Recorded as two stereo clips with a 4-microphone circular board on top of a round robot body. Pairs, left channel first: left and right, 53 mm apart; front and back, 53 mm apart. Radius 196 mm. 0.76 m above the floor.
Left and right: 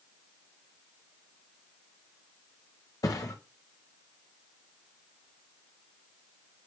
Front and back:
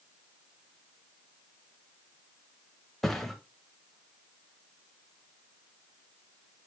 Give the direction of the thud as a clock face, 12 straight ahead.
9 o'clock.